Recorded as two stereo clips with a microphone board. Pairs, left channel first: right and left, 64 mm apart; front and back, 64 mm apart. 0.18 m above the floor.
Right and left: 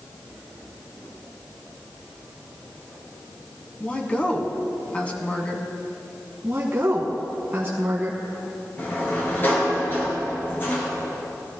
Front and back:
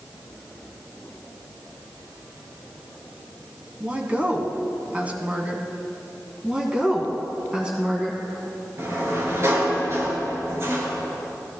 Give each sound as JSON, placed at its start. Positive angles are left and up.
{"t": 3.8, "sound": "a woman speaking", "azimuth_deg": -140, "distance_m": 1.4}
{"t": 6.4, "sound": "a woman speaking", "azimuth_deg": 115, "distance_m": 1.2}
{"t": 8.8, "sound": "a sliding door", "azimuth_deg": -140, "distance_m": 3.5}